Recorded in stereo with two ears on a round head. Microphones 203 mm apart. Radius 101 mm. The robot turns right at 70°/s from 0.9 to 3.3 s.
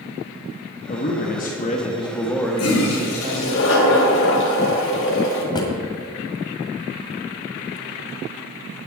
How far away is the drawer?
About 1.6 m.